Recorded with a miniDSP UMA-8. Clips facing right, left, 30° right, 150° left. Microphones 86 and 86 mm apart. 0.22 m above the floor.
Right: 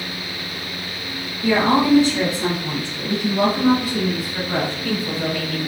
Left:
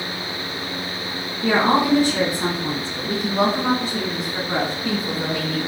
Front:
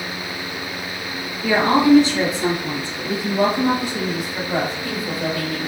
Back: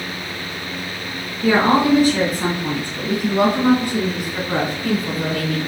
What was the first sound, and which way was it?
A woman speaking, 110° left.